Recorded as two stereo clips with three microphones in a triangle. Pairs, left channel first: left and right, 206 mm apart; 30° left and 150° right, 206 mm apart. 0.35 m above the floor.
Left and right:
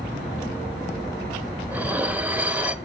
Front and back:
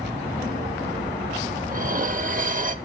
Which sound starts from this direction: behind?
Dishes clattering, at 1.7 s.